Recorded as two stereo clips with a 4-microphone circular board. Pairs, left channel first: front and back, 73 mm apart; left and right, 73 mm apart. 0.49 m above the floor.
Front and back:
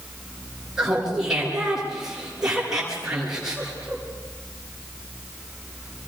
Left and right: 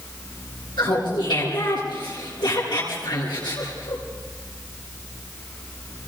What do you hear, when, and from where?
0.8 s laughter: 95° left, 8.5 m